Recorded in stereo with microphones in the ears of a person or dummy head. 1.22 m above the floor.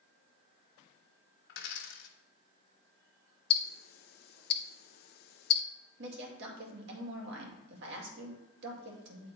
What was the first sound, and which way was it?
A dropped coin, 70° left (ahead or behind).